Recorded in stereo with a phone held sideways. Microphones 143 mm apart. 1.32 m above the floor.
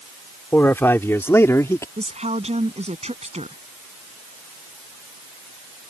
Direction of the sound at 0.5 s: 15° left (ahead or behind).